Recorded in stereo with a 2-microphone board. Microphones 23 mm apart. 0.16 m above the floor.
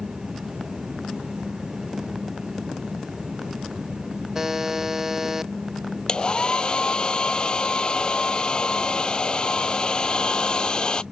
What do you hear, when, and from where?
4.3 s a buzzer: 20° right (ahead or behind)
6.1 s a hair dryer: 35° left (ahead or behind)